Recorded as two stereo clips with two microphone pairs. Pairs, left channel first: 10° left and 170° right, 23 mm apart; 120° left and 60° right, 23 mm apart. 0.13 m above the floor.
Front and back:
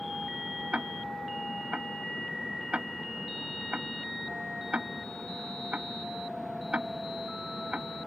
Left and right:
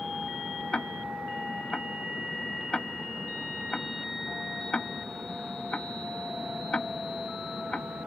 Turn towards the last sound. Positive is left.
turn(degrees=165)